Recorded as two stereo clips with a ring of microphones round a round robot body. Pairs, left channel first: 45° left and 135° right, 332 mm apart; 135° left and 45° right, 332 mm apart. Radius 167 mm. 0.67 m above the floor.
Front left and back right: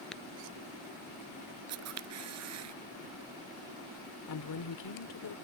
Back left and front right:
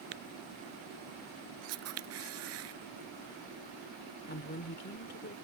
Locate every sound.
0.1 s tapping: 45° right
1.7 s a camera shutter: 90° right
4.3 s a woman speaking: 75° left